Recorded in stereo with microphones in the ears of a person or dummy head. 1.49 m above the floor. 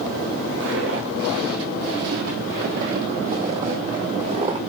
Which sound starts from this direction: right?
Footsteps, at 0.6 s.